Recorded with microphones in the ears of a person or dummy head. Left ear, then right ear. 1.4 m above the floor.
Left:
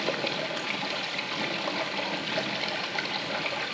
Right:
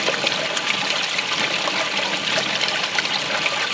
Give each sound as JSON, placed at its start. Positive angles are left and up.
{"t": 0.0, "sound": "running water", "side_deg": -60, "distance_m": 0.9}